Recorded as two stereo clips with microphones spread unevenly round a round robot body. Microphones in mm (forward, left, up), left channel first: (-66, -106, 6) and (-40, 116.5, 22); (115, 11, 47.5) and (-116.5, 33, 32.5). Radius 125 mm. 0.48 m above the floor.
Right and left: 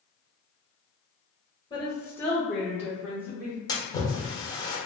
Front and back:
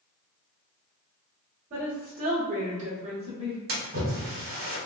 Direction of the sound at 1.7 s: 155° right.